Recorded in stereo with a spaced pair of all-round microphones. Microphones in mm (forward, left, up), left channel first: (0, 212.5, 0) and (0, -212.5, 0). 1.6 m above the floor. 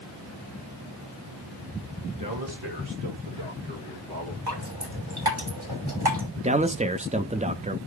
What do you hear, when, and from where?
2.2 s a man speaking: 45° right (ahead or behind), 2 m; by 4.4 s 65° right (ahead or behind), 2.5 m
4.5 s dripping: 60° right (ahead or behind), 4 m
6.4 s a man speaking: 15° right (ahead or behind), 0.6 m